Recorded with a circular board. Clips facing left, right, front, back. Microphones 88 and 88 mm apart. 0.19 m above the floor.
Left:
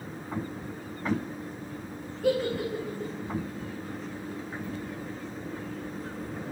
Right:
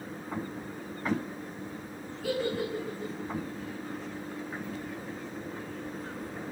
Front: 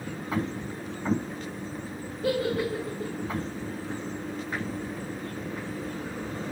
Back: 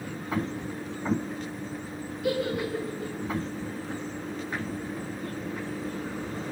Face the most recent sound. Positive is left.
turn(degrees=55)